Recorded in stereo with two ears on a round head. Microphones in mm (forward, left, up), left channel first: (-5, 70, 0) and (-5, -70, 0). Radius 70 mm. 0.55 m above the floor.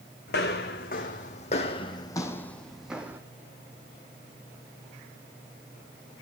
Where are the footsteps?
70° left (ahead or behind), 1.7 m; by 3.2 s 10° right (ahead or behind), 1.3 m.